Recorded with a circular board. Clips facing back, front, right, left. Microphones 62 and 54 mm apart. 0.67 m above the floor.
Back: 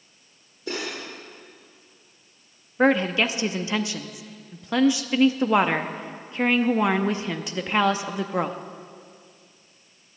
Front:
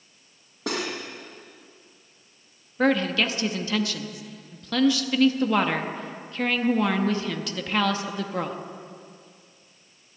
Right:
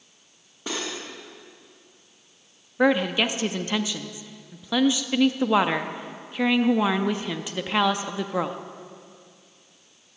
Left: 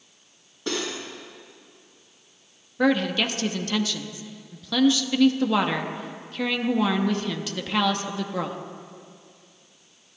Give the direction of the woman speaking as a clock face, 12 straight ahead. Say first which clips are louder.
Back 2 dB, right 1 dB; 5 o'clock.